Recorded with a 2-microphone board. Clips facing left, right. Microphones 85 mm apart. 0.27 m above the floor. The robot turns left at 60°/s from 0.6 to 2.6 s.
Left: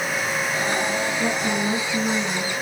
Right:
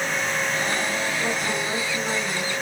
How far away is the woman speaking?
About 1.6 m.